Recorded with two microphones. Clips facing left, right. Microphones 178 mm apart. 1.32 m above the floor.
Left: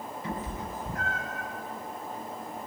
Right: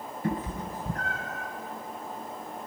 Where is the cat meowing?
50° right (ahead or behind), 3 m; by 1.5 s 25° right (ahead or behind), 3.5 m.